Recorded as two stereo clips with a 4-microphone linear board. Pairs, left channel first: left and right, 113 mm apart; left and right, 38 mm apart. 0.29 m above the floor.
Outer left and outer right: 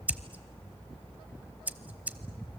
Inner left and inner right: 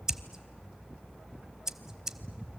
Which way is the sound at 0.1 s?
15° right (ahead or behind).